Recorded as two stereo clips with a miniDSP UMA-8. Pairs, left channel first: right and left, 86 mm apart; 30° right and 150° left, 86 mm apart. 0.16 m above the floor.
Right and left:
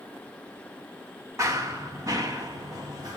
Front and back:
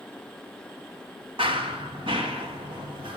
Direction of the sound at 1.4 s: 145° left.